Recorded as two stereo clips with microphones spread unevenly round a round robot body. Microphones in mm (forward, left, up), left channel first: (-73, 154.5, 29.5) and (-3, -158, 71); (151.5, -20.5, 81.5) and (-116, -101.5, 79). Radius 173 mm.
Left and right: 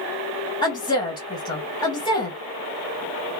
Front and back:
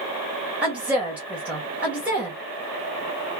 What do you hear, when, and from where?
0.6 s a woman speaking: 120° left, 1.1 m